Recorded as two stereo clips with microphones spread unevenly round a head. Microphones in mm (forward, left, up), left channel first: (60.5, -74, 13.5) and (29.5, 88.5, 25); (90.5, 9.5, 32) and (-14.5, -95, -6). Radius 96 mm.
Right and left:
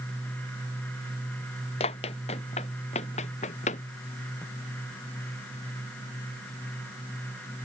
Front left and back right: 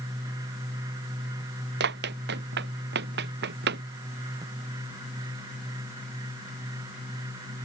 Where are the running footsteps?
140° right; by 3.8 s 135° right.